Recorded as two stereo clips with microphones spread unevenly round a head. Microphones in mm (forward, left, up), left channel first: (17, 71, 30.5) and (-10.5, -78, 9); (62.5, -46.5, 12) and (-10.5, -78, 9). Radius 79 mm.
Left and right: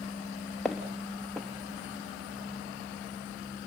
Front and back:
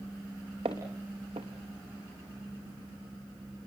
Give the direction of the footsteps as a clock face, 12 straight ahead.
6 o'clock.